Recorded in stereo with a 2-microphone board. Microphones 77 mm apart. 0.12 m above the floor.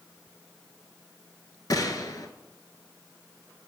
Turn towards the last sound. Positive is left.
turn(degrees=50)  # may be behind; listen again after turning